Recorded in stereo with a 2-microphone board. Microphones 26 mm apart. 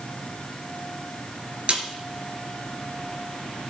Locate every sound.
1.7 s a snare drum: 45° right (ahead or behind), 3 m